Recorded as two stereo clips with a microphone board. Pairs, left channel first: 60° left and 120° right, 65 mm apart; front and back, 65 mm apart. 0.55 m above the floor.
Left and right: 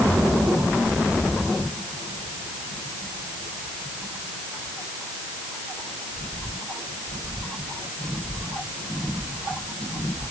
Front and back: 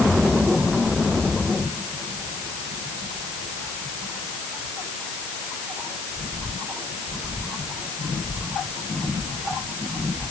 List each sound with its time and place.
Only background noise.